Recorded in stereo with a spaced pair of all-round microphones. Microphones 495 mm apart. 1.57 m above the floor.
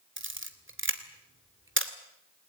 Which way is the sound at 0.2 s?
25° right (ahead or behind).